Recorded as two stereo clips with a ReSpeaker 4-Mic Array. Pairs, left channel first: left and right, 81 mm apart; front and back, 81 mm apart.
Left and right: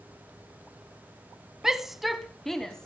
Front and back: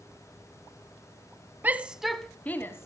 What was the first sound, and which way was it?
A shout, 165° right.